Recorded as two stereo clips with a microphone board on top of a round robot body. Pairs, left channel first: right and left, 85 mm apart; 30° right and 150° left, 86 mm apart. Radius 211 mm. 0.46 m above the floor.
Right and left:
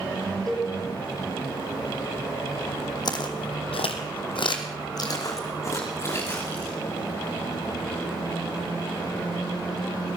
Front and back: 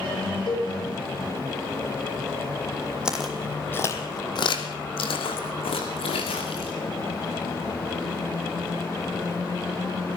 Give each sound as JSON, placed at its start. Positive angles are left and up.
{"t": 0.5, "sound": "a cowbell", "azimuth_deg": 0, "distance_m": 6.0}
{"t": 3.0, "sound": "footsteps", "azimuth_deg": -130, "distance_m": 2.0}